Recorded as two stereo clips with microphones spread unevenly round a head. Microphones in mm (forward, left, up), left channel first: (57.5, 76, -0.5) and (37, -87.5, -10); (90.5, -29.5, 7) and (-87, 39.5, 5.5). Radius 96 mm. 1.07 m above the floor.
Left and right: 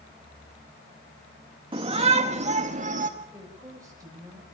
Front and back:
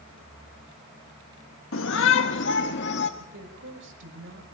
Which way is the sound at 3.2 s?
170° right.